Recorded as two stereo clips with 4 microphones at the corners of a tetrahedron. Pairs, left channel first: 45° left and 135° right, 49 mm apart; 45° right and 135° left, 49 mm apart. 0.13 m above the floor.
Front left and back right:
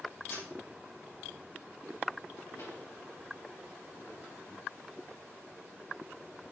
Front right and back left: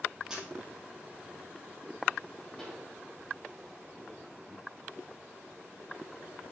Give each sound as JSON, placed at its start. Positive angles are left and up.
{"t": 0.3, "sound": "a camera shutter", "azimuth_deg": 60, "distance_m": 3.5}
{"t": 2.6, "sound": "a pop", "azimuth_deg": 30, "distance_m": 3.5}